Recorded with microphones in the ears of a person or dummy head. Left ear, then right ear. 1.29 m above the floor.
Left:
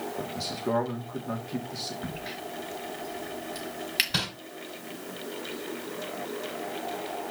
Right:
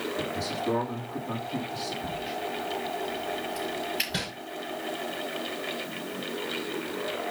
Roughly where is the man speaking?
Left.